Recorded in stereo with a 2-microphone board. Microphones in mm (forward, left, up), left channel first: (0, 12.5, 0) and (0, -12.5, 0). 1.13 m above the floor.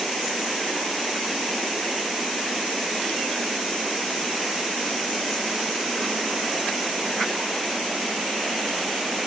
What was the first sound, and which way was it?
Only background noise.